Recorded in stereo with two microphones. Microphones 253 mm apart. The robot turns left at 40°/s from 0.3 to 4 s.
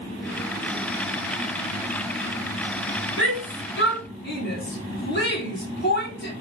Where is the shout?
55° left (ahead or behind), 2 m; by 6.3 s 45° left (ahead or behind), 2 m.